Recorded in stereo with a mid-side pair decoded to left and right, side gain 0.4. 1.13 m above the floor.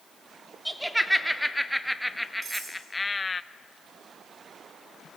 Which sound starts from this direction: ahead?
Laughter, at 0.7 s.